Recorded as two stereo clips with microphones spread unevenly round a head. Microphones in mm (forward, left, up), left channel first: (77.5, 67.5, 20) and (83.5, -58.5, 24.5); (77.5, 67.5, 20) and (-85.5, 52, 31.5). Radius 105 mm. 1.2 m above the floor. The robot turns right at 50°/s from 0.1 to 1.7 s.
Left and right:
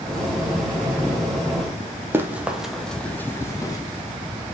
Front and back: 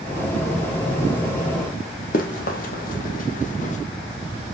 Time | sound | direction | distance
2.1 | running footsteps | 25° right | 1.8 m